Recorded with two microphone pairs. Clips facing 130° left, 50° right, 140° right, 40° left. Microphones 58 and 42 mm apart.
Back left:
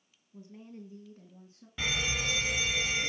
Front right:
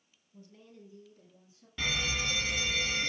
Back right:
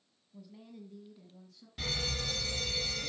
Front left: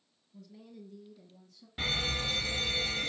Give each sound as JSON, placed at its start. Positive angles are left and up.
{"t": 0.3, "sound": "a woman speaking", "azimuth_deg": 160, "distance_m": 1.4}
{"t": 1.8, "sound": "a fire alarm", "azimuth_deg": 60, "distance_m": 2.0}